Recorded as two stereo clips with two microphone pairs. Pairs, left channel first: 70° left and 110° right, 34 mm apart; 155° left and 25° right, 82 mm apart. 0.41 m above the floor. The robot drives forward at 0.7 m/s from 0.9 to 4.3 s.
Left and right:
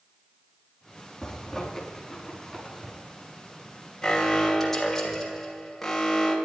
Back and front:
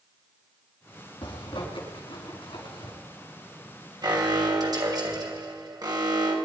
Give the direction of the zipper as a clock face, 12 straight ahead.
7 o'clock.